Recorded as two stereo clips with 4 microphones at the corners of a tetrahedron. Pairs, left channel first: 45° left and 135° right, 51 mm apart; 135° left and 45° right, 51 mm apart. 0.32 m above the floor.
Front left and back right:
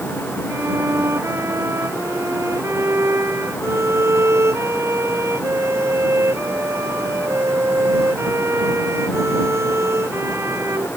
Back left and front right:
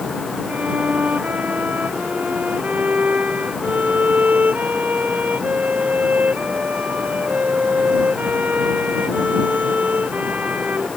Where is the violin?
105° right.